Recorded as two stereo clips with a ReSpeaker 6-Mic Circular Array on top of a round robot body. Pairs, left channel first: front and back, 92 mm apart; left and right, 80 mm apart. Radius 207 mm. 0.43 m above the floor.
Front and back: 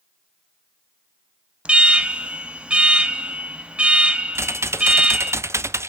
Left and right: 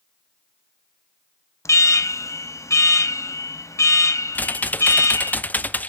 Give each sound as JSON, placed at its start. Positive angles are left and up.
{"t": 1.6, "sound": "an alarm", "azimuth_deg": 110, "distance_m": 0.9}
{"t": 4.3, "sound": "typing on a keyboard", "azimuth_deg": 145, "distance_m": 0.7}